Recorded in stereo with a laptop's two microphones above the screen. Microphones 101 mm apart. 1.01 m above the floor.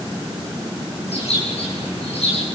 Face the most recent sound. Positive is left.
turn(degrees=80)